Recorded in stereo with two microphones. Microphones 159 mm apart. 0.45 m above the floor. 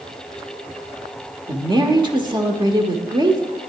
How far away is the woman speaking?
About 1.1 m.